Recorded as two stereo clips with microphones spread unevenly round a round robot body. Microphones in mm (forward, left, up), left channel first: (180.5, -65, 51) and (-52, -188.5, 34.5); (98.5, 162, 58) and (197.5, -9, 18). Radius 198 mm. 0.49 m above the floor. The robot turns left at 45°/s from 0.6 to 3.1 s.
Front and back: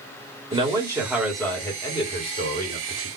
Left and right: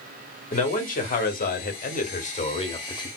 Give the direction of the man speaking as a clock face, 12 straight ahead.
7 o'clock.